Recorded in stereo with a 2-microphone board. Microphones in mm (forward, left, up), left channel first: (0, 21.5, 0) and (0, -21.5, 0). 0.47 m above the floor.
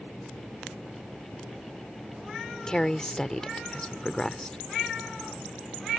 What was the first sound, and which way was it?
A woman speaking, 15° left (ahead or behind).